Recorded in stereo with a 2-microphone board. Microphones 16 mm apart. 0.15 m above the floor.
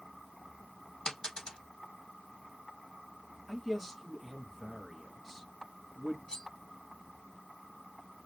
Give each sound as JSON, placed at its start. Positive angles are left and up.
{"t": 1.1, "sound": "a dropped coin", "side_deg": 75, "distance_m": 2.0}
{"t": 3.5, "sound": "a man speaking", "side_deg": 10, "distance_m": 1.7}
{"t": 6.3, "sound": "cutlery clinking", "side_deg": 70, "distance_m": 1.9}